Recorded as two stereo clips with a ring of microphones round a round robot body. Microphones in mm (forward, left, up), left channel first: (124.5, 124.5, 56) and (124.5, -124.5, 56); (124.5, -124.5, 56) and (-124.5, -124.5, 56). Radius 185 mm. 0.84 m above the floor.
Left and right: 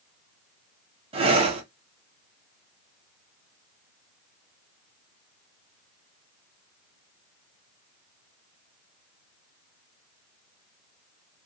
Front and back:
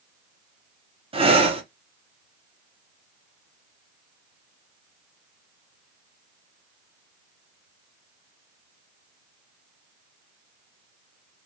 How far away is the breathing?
About 0.7 m.